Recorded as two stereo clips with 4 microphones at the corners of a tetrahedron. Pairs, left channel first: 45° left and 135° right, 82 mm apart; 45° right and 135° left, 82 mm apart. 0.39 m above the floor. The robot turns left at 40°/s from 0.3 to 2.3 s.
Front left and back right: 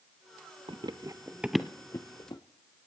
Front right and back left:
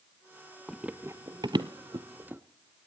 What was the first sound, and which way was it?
Running footsteps, 135° right.